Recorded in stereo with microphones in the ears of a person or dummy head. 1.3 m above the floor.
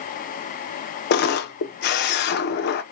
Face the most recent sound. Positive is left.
turn(degrees=50)  # may be behind; listen again after turning